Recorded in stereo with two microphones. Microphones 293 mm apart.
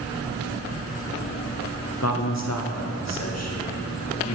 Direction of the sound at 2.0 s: 60° left (ahead or behind).